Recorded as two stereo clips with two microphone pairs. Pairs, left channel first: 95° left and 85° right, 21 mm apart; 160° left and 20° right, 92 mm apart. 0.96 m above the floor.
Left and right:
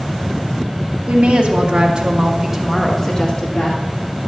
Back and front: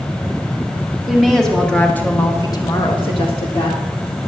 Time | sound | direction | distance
1.1 | a woman speaking | 110° right | 2.5 m